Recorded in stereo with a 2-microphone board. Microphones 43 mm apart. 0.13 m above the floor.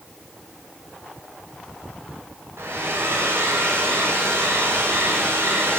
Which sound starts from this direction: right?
A hair dryer, at 2.6 s.